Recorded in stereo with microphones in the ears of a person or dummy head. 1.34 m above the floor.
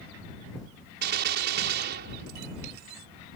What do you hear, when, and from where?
1.0 s a gunshot: 60° right (ahead or behind)